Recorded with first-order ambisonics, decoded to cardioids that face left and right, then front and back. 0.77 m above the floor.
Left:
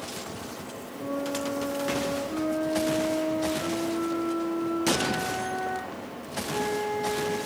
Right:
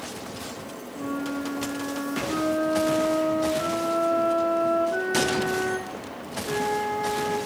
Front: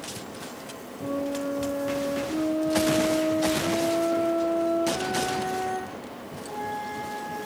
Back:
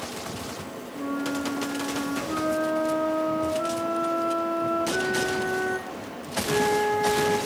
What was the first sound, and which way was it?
A flute, 150° right.